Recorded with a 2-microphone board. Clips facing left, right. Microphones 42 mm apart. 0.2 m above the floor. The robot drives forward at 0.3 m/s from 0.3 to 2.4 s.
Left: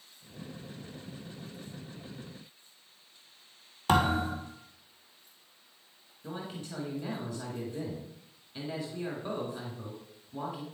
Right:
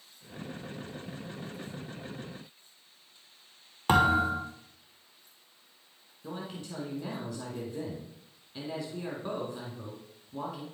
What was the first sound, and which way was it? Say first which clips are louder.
A thud: right 3 dB; 30° right (ahead or behind).